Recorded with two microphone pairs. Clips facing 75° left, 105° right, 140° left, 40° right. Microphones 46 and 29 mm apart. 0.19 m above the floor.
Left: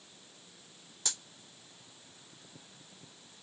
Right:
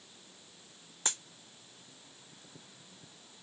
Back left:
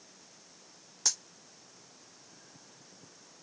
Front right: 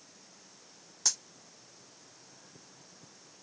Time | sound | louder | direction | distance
1.1 | a dropped coin | right 4 dB, even | 140° right | 0.6 m